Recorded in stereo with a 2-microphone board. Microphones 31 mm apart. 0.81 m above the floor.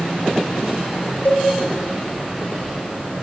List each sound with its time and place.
1.2 s a cowbell: 55° left (ahead or behind), 0.9 m